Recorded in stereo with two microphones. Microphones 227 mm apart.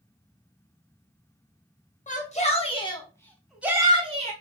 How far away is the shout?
About 1.0 m.